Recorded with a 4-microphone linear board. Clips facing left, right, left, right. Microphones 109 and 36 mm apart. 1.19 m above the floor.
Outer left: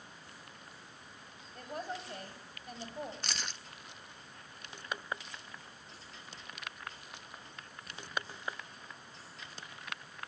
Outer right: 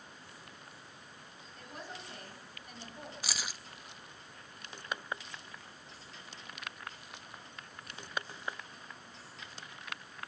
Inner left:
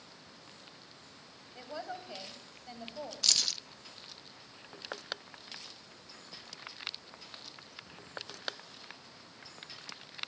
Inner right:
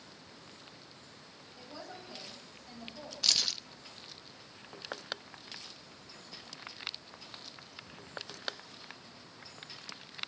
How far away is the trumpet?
I don't hear a trumpet.